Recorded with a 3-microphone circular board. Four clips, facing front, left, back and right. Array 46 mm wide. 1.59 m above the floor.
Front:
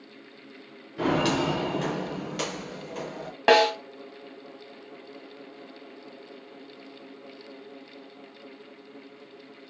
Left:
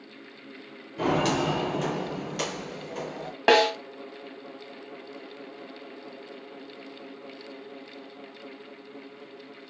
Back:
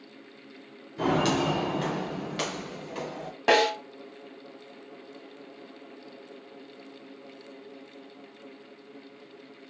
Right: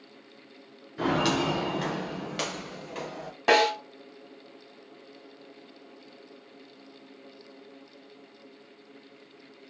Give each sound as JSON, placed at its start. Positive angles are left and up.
{"t": 1.0, "sound": "footsteps", "azimuth_deg": -45, "distance_m": 1.6}
{"t": 3.5, "sound": "a snare drum", "azimuth_deg": 50, "distance_m": 1.6}